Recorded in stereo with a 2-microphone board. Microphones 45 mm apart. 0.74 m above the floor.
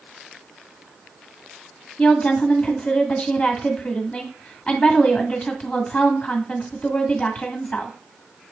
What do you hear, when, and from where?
2.0 s a woman speaking: 20° left (ahead or behind), 1.7 m